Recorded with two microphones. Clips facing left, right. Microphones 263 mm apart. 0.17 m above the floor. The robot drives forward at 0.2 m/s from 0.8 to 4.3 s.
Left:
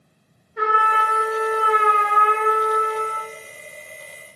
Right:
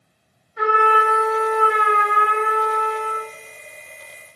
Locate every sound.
0.6 s a trumpet: 65° left (ahead or behind), 4 m; by 3.3 s 55° left (ahead or behind), 4 m